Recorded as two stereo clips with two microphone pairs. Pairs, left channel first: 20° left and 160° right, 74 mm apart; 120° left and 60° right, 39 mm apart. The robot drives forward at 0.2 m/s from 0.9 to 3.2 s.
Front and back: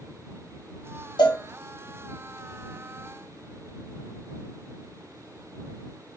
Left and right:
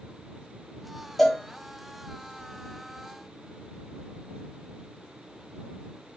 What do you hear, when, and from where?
1.2 s a cowbell: 25° left, 0.7 m; by 1.4 s 30° left, 0.7 m